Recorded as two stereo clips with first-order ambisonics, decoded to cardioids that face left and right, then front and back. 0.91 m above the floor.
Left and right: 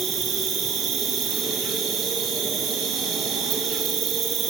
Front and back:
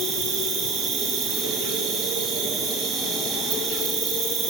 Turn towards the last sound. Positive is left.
turn(degrees=-140)